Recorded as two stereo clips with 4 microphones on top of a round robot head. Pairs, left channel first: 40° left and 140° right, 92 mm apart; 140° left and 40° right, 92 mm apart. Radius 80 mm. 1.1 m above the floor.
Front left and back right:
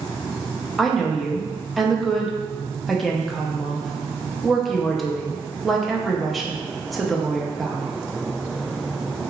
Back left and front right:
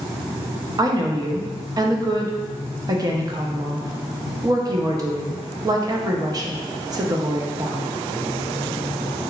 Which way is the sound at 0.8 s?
50° right.